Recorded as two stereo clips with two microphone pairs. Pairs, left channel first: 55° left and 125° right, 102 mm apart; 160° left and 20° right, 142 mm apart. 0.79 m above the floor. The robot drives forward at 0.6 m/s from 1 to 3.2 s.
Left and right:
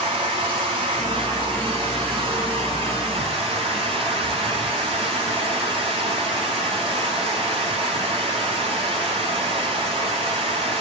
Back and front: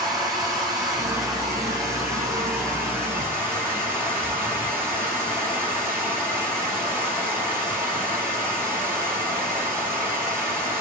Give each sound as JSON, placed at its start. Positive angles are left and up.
{"t": 0.0, "sound": "running water", "azimuth_deg": -80, "distance_m": 8.0}